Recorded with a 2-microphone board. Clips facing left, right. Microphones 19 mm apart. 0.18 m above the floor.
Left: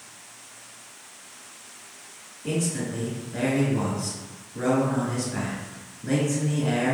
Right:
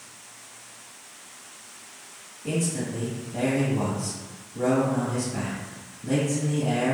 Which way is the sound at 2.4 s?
45° left (ahead or behind).